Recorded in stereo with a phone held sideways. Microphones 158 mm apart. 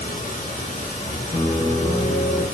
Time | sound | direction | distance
0.0 | running water | 55° left (ahead or behind) | 1.6 m
1.3 | a piano | 60° left (ahead or behind) | 0.8 m